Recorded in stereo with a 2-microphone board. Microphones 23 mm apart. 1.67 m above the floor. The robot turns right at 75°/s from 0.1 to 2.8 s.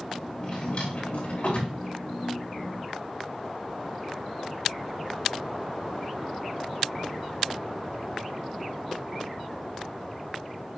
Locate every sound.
0.4 s a drawer: 20° left (ahead or behind), 4.5 m; by 1.8 s 55° left (ahead or behind), 4.5 m